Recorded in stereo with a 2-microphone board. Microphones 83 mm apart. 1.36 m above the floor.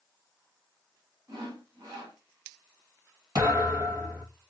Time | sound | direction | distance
1.3 | sawing | 55° right (ahead or behind) | 2.5 m
3.4 | a thud | 50° right (ahead or behind) | 2.5 m